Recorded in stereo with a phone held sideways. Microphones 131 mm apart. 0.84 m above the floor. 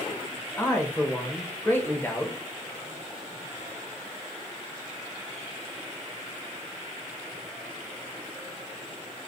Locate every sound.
0.6 s a man speaking: 15° left (ahead or behind), 0.9 m